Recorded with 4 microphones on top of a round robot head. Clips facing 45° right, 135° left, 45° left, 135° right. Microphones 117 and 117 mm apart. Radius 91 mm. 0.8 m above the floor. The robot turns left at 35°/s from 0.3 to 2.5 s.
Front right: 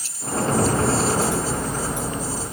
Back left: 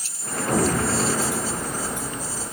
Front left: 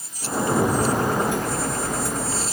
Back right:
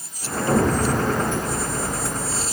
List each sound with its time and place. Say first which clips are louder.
0.5 s an explosion: front right 1 dB, back right 1 dB; 145° right, 3 m; by 1.9 s 165° left, 3 m